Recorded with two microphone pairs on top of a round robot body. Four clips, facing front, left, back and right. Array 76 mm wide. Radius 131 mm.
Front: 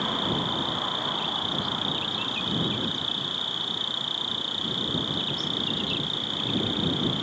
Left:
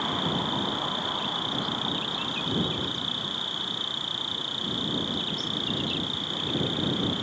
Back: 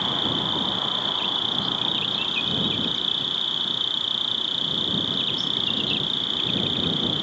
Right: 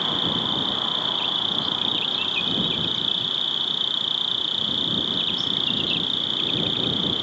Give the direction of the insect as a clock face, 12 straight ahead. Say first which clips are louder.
Right 1 dB, even; 4 o'clock.